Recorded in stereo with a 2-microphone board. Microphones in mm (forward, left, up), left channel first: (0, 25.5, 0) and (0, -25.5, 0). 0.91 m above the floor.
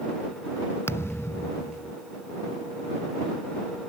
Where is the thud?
55° left (ahead or behind).